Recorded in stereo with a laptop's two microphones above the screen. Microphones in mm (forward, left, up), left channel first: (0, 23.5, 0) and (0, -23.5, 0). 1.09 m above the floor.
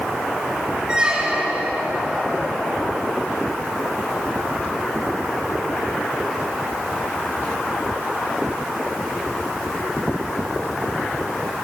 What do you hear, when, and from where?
0.9 s a squeak: 20° right (ahead or behind), 0.8 m